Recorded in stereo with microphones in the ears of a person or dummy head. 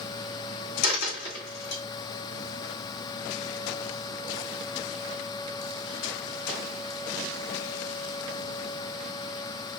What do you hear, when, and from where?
0.8 s a dropped coin: 55° left (ahead or behind), 1.6 m